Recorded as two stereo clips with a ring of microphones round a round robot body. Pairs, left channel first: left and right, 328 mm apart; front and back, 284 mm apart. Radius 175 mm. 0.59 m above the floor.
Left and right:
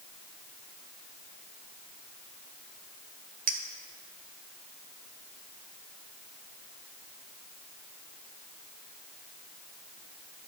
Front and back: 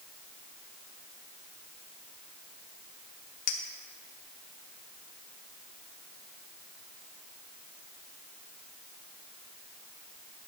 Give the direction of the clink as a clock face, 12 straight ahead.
1 o'clock.